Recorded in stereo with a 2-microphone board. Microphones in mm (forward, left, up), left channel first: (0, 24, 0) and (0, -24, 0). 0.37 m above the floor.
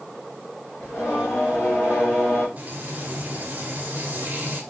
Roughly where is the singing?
Left.